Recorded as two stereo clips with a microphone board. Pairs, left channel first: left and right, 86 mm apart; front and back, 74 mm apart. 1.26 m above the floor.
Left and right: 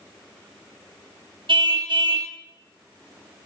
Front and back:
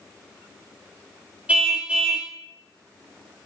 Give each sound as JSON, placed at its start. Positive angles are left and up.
{"t": 1.5, "sound": "a car horn", "azimuth_deg": -110, "distance_m": 4.0}